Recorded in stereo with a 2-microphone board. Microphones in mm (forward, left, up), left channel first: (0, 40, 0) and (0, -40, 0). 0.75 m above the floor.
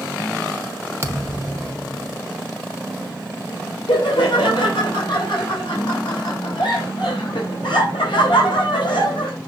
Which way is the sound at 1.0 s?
35° right (ahead or behind).